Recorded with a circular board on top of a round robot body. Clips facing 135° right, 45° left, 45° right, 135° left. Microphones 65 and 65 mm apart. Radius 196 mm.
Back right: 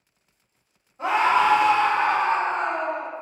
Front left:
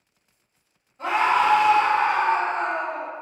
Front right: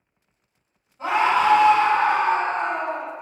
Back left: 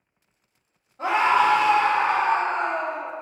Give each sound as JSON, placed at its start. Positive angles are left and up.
{"t": 1.0, "sound": "a scream", "azimuth_deg": 150, "distance_m": 1.1}